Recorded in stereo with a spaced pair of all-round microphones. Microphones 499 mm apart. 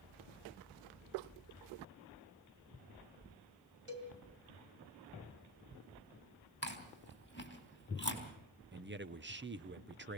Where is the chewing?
20° left (ahead or behind), 3.5 m.